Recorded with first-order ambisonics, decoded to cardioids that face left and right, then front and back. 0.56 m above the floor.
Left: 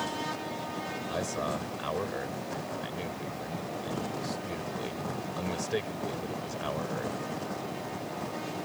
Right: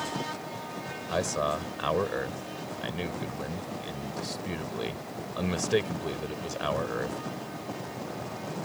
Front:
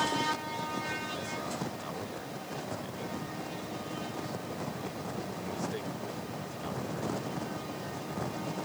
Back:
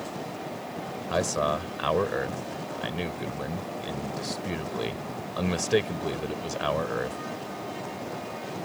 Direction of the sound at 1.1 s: 160° right.